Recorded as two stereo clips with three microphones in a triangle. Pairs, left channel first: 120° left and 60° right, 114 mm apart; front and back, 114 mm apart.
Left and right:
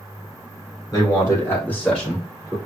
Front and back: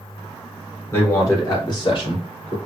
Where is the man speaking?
65° left, 4 m; by 2.6 s 20° left, 3 m.